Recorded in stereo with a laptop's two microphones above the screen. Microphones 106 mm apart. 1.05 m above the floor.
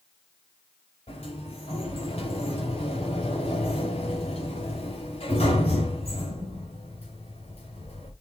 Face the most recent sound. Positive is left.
turn(degrees=70)  # may be behind; listen again after turning